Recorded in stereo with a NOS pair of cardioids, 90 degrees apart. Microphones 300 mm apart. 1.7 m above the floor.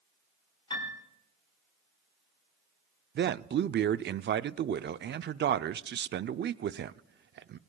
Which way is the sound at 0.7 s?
15° left.